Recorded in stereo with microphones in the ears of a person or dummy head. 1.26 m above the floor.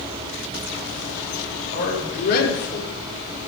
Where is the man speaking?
55° left (ahead or behind), 5 m; by 2.9 s 50° left (ahead or behind), 4.5 m.